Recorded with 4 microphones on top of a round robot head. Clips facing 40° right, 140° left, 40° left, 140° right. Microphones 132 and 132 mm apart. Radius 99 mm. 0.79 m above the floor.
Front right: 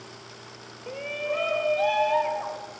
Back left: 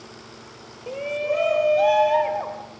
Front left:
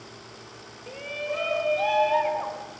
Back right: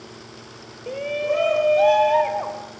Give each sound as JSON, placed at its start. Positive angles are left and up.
{"t": 0.9, "sound": "a shout", "azimuth_deg": -155, "distance_m": 1.1}